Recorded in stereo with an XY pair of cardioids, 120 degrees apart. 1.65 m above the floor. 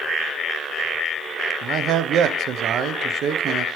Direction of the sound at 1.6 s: 60° right.